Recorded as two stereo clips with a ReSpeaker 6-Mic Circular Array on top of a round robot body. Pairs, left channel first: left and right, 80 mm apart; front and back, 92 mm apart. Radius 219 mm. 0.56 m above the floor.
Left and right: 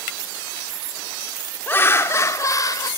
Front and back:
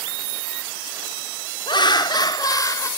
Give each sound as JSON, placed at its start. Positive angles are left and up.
{"t": 1.7, "sound": "laughter", "azimuth_deg": 30, "distance_m": 2.5}